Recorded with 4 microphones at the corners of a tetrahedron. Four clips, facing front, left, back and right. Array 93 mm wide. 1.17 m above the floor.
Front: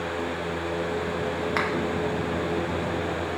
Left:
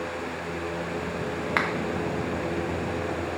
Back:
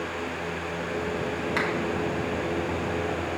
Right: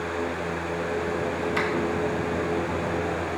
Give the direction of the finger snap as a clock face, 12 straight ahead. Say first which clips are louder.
Left 2 dB, even; 10 o'clock.